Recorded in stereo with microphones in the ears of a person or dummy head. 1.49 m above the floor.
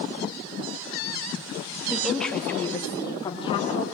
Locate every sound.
1.9 s a woman speaking: 5° right (ahead or behind), 2 m; by 3.8 s 35° left (ahead or behind), 3.5 m